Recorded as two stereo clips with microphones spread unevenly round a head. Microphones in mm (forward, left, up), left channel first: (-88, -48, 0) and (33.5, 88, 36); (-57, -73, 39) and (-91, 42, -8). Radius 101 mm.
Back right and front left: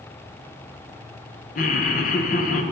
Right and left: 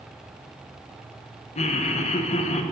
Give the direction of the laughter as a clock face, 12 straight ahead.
3 o'clock.